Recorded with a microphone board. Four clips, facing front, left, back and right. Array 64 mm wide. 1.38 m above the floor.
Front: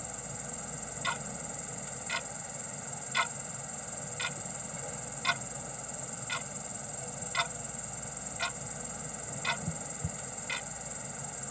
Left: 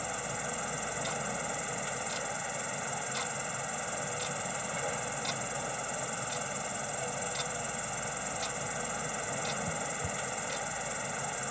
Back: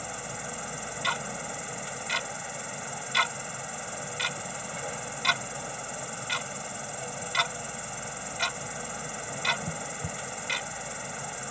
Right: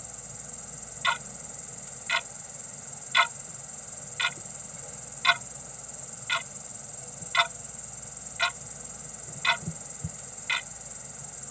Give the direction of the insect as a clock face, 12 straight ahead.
8 o'clock.